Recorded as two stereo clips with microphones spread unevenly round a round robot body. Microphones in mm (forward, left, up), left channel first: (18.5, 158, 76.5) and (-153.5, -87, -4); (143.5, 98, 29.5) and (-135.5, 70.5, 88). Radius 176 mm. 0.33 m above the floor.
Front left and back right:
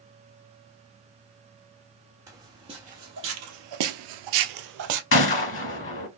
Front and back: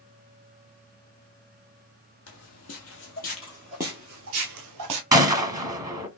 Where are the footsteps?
40° right, 1.0 m; by 5.0 s 160° right, 0.8 m.